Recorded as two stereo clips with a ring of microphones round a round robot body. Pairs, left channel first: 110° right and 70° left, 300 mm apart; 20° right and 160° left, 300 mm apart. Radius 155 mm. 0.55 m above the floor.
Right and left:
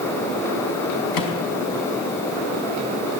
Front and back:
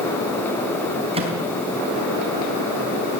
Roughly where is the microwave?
Behind right.